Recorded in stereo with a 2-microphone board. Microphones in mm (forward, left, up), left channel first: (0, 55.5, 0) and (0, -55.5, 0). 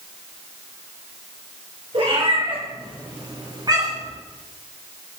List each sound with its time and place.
1.9 s a cat meowing: 55° right (ahead or behind), 3.5 m; by 4.1 s 35° right (ahead or behind), 2.5 m